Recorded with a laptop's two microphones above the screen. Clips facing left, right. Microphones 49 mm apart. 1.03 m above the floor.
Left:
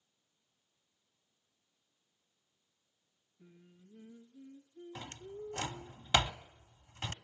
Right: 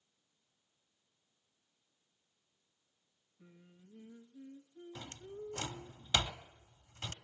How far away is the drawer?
About 1.0 m.